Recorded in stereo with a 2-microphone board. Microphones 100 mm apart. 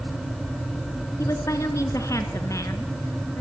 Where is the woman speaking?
30° left (ahead or behind), 1.9 m.